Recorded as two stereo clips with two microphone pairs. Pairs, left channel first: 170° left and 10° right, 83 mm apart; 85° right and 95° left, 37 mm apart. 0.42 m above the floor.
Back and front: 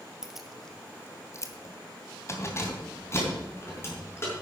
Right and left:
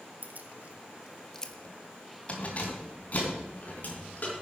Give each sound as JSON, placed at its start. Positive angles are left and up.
{"t": 0.2, "sound": "keys jangling", "azimuth_deg": 75, "distance_m": 1.5}